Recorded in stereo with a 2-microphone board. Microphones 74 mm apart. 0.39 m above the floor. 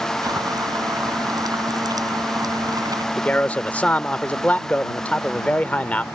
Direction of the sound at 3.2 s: 20° left (ahead or behind).